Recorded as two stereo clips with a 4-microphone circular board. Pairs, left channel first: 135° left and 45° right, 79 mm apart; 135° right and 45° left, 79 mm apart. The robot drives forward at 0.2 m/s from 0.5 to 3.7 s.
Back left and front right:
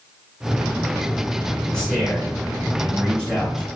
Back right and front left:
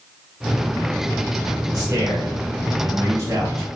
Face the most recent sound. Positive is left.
turn(degrees=70)